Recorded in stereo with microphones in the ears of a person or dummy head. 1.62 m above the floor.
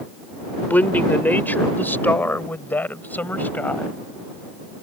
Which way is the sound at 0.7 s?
10° left (ahead or behind).